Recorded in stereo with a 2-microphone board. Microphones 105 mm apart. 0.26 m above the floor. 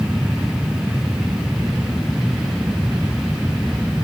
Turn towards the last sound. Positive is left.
No sound to turn to.